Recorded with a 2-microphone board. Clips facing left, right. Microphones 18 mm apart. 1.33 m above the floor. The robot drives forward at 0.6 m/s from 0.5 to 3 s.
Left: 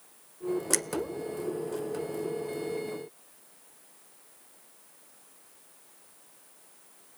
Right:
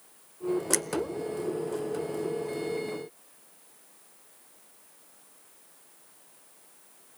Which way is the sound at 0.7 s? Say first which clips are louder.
Right 1 dB; 5° left (ahead or behind).